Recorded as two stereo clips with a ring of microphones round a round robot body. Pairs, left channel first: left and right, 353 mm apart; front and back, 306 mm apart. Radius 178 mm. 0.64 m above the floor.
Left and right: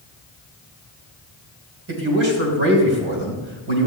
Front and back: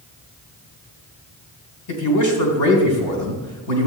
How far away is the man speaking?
About 3.5 m.